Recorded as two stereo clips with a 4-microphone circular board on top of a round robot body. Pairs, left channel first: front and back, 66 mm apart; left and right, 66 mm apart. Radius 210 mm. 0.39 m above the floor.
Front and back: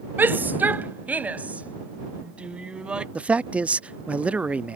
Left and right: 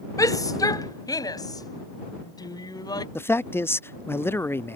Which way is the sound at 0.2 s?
120° left.